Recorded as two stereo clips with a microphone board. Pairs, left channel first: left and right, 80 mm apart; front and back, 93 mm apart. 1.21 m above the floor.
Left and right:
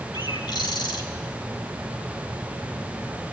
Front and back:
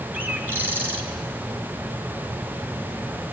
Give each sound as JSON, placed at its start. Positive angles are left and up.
{"t": 0.1, "sound": "a bird", "azimuth_deg": 110, "distance_m": 3.0}